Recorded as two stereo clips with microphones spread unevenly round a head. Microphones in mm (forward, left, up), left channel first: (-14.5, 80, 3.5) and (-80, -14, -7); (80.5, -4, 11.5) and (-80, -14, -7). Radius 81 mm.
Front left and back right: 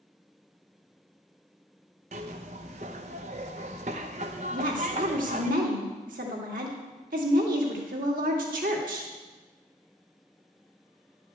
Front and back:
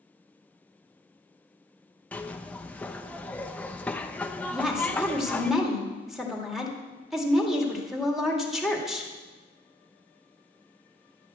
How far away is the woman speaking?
About 2 m.